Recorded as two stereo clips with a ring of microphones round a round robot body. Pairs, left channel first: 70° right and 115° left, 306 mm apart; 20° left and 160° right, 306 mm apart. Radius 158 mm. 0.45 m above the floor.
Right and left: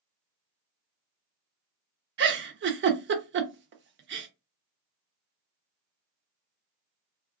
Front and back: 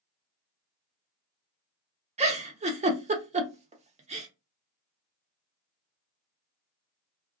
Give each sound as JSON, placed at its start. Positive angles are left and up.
{"t": 2.2, "sound": "a giggle", "azimuth_deg": 145, "distance_m": 0.6}